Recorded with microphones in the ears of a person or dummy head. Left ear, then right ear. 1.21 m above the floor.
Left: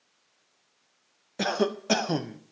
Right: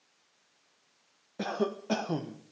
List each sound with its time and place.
1.4 s a cough: 60° left (ahead or behind), 0.6 m